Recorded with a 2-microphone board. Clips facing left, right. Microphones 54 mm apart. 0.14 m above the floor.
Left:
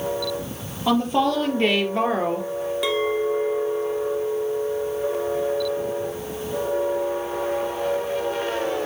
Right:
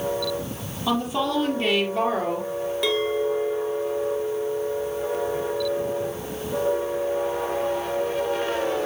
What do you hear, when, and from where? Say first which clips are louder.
0.9 s a woman speaking: left 4 dB; 45° left (ahead or behind), 4.5 m; by 2.5 s 30° left (ahead or behind), 2.5 m
2.8 s a clink: left 1 dB; 5° left (ahead or behind), 1.4 m